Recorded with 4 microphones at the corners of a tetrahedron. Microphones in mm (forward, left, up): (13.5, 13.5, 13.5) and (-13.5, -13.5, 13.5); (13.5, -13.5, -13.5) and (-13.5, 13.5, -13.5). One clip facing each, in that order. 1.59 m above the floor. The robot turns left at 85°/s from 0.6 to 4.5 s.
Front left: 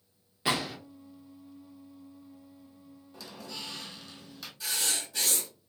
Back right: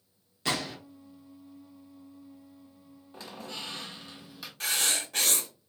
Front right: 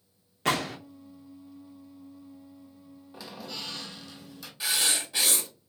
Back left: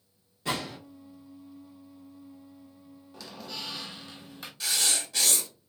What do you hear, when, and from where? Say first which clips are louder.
0.5 s a gunshot: front left 2 dB, front right 5 dB; 30° right, 0.7 m; by 0.8 s 45° right, 0.7 m
3.1 s a squeak: back right 2 dB, front right 1 dB; 100° right, 0.8 m; by 4.5 s 140° left, 0.8 m
4.6 s writing: back right 4 dB, front right 1 dB; 110° right, 0.9 m